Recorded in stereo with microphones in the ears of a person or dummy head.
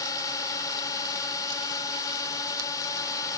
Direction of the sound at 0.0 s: 20° left (ahead or behind).